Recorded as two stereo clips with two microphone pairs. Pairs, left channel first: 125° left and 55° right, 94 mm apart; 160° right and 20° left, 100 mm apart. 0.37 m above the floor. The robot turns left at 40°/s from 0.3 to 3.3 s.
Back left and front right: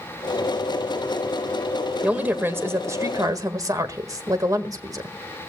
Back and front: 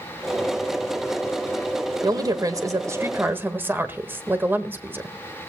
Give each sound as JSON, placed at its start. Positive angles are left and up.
{"t": 2.0, "sound": "a woman speaking", "azimuth_deg": 15, "distance_m": 1.4}